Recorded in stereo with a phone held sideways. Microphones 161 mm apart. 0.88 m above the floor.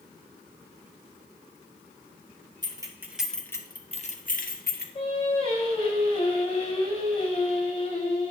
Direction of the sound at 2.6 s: 25° right (ahead or behind).